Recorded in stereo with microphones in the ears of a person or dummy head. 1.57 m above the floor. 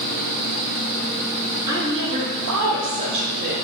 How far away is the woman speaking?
About 1.1 m.